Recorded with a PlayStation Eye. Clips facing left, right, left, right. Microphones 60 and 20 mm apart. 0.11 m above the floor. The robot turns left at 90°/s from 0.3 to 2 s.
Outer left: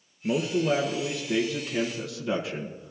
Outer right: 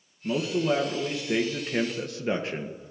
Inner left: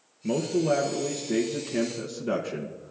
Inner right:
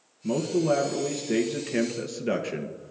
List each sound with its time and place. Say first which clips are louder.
0.2 s a man speaking: outer left 1 dB, even; 50° left, 1.7 m; by 2.9 s 100° right, 1.7 m